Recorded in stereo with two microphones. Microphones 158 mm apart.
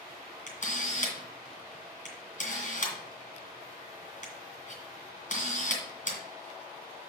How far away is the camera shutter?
About 3 m.